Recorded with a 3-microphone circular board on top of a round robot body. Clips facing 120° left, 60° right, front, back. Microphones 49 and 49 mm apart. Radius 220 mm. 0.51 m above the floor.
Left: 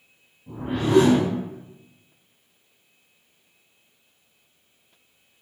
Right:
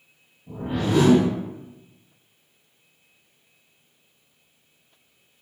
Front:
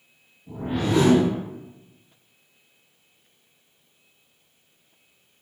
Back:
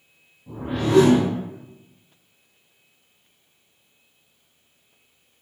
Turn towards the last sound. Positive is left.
turn(degrees=155)